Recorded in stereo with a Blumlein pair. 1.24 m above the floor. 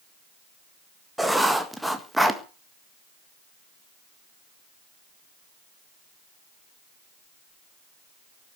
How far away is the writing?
About 1.7 m.